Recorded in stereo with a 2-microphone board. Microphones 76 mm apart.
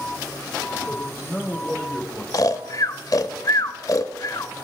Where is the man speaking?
Centre (ahead or behind), 5 m.